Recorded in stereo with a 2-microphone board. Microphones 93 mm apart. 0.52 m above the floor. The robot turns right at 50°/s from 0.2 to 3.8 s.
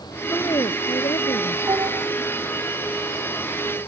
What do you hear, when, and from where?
0.3 s a woman speaking: 35° left; by 1.6 s 100° left
1.7 s dishes clattering: 40° right (ahead or behind); by 2.1 s 60° right (ahead or behind)